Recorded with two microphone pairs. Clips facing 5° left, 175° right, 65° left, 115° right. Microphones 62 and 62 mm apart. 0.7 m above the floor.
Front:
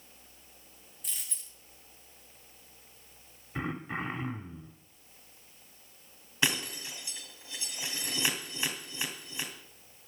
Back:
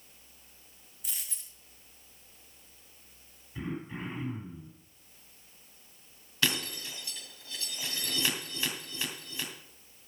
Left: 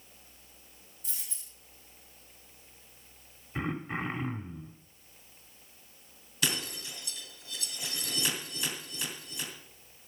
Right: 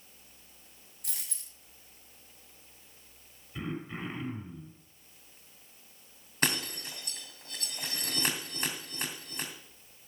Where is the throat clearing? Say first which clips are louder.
Front 3 dB, left 4 dB; 20° left, 1.5 m.